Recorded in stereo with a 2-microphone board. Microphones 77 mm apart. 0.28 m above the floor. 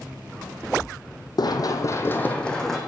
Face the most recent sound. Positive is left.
turn(degrees=5)  # may be behind; listen again after turning